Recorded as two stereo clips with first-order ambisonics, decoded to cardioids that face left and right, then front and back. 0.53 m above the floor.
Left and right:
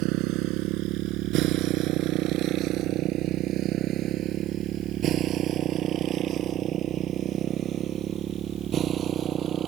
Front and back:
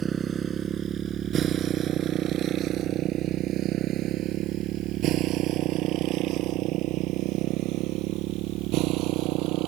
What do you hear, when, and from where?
0.0 s a motorcycle: 115° right; by 9.7 s 150° right